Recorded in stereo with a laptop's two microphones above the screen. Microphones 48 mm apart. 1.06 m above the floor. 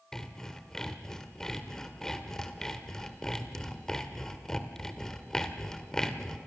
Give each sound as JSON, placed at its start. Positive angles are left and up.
{"t": 0.1, "sound": "sawing", "side_deg": 10, "distance_m": 1.4}